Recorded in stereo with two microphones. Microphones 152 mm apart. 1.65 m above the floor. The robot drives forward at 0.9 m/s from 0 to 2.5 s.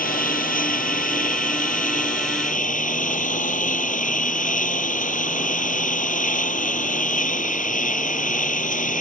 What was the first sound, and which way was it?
A lawn mower, 70° left (ahead or behind).